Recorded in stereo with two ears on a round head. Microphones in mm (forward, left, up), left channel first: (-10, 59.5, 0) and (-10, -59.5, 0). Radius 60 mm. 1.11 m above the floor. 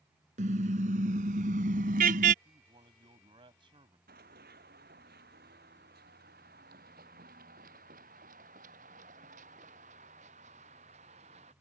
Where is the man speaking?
40° right (ahead or behind).